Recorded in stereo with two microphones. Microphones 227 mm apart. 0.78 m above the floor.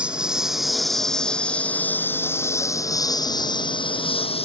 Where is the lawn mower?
5° right (ahead or behind); by 4.5 s 25° left (ahead or behind).